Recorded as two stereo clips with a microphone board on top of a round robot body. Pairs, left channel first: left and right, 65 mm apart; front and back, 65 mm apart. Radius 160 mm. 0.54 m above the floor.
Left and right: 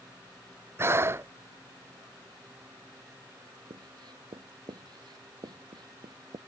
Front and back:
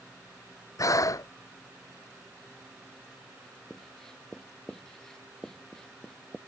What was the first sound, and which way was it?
Breathing, 40° right.